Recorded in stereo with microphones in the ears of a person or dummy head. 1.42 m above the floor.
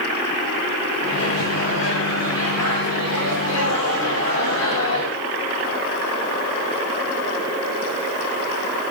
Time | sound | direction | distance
1.0 | a microwave | 85° left | 5 m